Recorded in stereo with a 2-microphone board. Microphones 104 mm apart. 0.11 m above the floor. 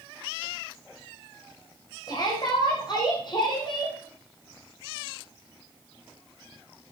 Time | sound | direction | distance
2.1 | a shout | 40° left (ahead or behind) | 7.5 m